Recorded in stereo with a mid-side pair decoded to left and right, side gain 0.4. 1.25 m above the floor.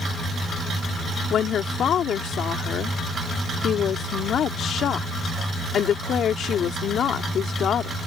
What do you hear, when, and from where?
1.3 s a woman speaking: 65° left